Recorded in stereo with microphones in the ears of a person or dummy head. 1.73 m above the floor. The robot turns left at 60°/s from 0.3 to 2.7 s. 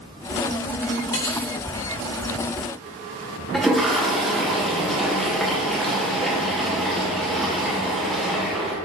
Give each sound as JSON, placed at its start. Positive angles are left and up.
{"t": 1.1, "sound": "cutlery clinking", "side_deg": 20, "distance_m": 0.9}
{"t": 3.5, "sound": "a toilet flushing", "side_deg": 0, "distance_m": 0.7}